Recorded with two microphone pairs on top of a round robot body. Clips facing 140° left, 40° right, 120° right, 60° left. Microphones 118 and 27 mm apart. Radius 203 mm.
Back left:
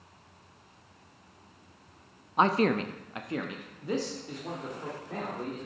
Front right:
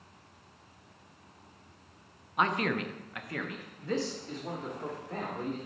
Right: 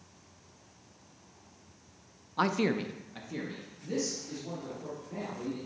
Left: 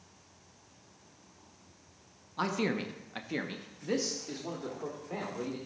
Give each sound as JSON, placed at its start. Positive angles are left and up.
{"t": 2.4, "sound": "a man speaking", "azimuth_deg": 175, "distance_m": 0.8}